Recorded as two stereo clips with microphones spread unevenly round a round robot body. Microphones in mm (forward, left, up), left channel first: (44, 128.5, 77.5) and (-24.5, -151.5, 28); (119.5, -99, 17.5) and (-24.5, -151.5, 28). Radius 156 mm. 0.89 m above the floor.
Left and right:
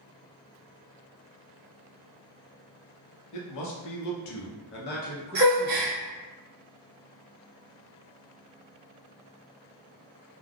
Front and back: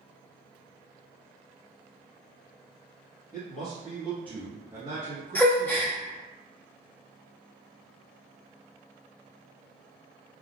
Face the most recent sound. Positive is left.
turn(degrees=-55)